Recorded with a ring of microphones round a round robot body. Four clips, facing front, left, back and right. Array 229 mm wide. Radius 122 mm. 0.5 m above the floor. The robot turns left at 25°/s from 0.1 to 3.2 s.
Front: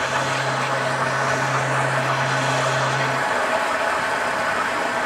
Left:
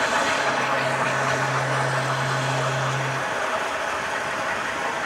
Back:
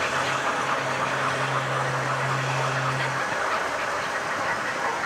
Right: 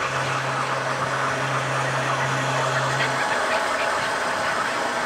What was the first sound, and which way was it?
Running water, 65° left.